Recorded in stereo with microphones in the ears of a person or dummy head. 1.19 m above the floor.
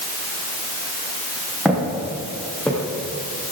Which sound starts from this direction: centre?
Footsteps, at 1.6 s.